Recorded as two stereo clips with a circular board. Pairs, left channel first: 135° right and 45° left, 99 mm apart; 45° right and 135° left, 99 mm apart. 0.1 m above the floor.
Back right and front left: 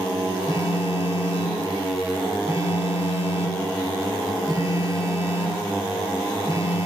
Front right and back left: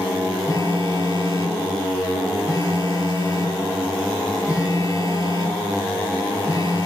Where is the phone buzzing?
5° left, 2 m.